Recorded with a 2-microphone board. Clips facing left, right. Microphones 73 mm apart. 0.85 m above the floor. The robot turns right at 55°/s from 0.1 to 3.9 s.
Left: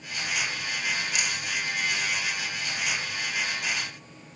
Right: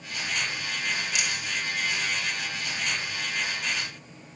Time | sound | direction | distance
1.1 | a rattle | 50° left (ahead or behind) | 0.8 m